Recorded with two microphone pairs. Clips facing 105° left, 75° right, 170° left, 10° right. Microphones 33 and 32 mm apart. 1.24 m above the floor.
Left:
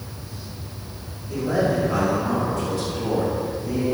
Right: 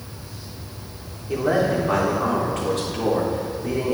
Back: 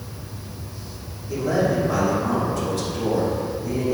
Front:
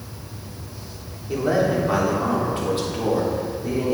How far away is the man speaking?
About 4 m.